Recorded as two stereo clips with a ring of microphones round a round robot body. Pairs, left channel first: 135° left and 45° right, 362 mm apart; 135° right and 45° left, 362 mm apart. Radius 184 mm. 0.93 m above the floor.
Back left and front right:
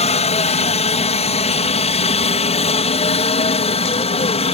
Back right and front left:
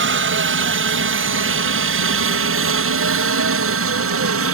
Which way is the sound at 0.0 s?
75° left.